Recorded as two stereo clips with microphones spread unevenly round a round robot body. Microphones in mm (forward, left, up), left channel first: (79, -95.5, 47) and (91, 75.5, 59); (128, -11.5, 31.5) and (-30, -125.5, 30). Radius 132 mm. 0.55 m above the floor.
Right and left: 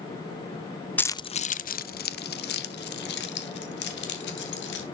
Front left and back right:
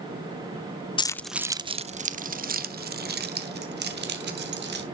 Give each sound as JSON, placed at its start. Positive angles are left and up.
{"t": 1.0, "sound": "keys jangling", "azimuth_deg": -20, "distance_m": 0.5}